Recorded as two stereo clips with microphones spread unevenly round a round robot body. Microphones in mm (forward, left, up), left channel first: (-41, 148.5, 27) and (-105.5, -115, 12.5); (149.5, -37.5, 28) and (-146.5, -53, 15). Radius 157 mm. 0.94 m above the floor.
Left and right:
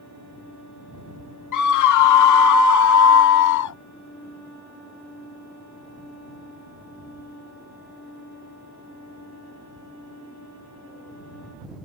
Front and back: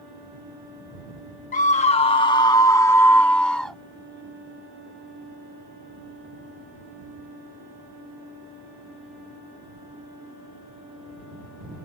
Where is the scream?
70° left; by 3.8 s 90° left.